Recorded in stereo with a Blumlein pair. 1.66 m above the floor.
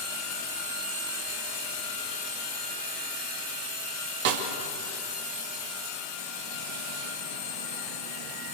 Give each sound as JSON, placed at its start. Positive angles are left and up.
{"t": 4.2, "sound": "a snare drum", "azimuth_deg": -50, "distance_m": 2.5}